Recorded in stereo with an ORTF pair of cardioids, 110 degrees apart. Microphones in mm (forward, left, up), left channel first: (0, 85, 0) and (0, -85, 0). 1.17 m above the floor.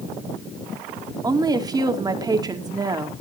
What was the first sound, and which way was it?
A woman speaking, 20° right.